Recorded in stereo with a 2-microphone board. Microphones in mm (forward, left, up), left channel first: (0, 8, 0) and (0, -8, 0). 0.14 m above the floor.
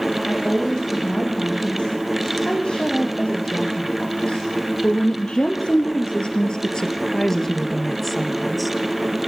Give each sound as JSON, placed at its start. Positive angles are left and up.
{"t": 0.3, "sound": "a woman speaking", "side_deg": 70, "distance_m": 8.0}